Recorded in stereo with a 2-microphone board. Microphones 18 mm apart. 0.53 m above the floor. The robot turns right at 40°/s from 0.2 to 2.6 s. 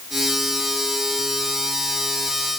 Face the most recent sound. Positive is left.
No sound to turn to.